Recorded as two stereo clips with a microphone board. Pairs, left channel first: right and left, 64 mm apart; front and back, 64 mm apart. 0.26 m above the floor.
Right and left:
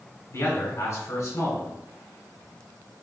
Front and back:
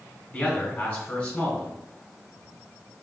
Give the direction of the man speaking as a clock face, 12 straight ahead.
2 o'clock.